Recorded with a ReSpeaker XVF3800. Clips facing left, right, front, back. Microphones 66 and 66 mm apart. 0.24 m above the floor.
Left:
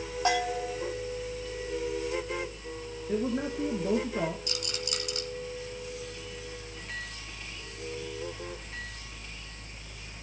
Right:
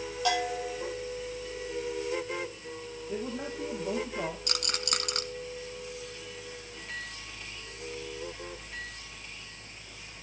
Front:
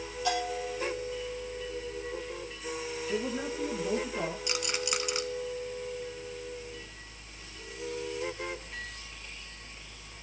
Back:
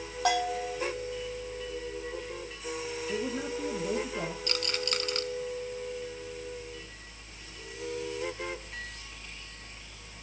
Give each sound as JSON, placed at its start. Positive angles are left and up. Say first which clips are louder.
{"t": 0.2, "sound": "a bell", "louder": "left 1 dB, back 3 dB", "azimuth_deg": 150, "distance_m": 5.0}
{"t": 3.1, "sound": "a man speaking", "louder": "left 6 dB, front 1 dB", "azimuth_deg": 90, "distance_m": 3.0}
{"t": 4.5, "sound": "a rattle", "louder": "right 1 dB, even", "azimuth_deg": -75, "distance_m": 1.5}